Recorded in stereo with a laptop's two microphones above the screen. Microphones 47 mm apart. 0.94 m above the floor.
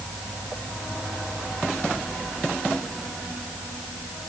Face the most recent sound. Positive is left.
No sound to turn to.